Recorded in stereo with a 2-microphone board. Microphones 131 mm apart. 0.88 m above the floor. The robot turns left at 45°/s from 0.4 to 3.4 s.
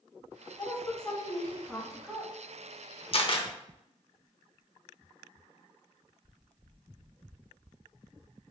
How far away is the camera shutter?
About 0.8 m.